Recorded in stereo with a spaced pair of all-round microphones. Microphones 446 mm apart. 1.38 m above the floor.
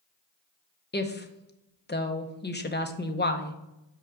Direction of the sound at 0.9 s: 25° left (ahead or behind).